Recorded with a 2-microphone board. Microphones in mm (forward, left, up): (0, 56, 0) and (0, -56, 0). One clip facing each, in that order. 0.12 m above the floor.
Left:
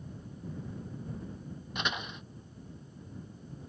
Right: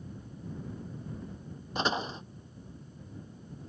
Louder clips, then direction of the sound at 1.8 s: Right 6 dB; 35° right (ahead or behind).